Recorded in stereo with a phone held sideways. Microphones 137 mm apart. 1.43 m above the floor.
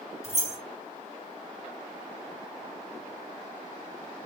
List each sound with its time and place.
0.2 s keys jangling: 50° right (ahead or behind), 1.3 m